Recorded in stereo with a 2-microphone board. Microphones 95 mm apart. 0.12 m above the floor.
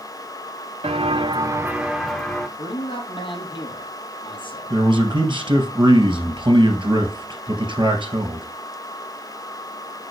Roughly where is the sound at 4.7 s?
Right.